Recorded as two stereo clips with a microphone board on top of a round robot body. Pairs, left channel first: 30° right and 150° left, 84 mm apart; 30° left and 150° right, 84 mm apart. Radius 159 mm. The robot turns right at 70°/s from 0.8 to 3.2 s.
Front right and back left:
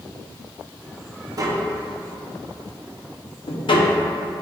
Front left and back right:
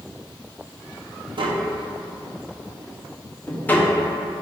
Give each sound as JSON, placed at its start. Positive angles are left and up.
{"t": 1.4, "sound": "tapping", "azimuth_deg": -170, "distance_m": 1.1}